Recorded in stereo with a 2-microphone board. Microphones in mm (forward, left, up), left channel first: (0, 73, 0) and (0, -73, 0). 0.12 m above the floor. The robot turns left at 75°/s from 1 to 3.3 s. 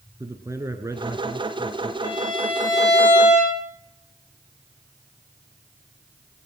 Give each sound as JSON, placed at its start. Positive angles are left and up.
{"t": 0.2, "sound": "a man speaking", "azimuth_deg": -45, "distance_m": 1.2}
{"t": 2.0, "sound": "a violin", "azimuth_deg": -65, "distance_m": 7.5}